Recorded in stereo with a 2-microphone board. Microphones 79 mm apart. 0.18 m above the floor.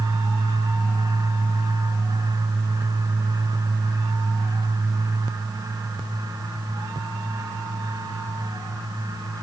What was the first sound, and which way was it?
Only background noise.